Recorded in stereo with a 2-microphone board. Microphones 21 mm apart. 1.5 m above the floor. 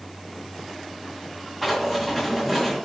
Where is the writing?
Centre (ahead or behind), 1.7 m.